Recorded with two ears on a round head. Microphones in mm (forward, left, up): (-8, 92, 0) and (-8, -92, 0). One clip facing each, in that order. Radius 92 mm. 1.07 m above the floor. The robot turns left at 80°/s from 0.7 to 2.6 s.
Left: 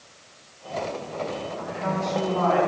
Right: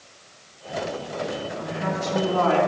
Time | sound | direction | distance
1.6 | a woman speaking | 25° right | 3.5 m